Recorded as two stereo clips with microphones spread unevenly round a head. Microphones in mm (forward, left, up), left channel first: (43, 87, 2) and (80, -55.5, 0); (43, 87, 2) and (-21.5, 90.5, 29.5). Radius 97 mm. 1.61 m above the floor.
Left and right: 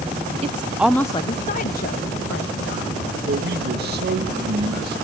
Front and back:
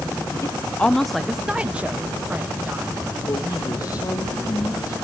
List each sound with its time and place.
0.4 s a woman speaking: 85° right, 0.6 m; by 4.1 s 120° left, 2.5 m
3.3 s a man speaking: 60° right, 3 m